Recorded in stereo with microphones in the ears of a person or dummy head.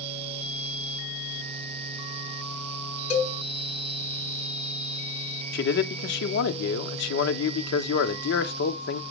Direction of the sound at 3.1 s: 45° left (ahead or behind).